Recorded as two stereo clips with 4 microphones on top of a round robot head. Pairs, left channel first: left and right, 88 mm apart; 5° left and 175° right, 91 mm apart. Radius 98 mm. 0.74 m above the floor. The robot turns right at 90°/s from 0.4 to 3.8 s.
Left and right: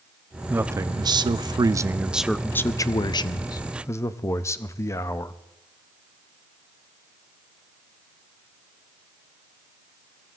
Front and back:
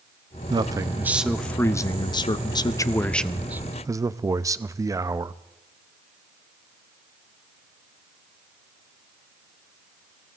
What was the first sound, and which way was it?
A man speaking, 160° right.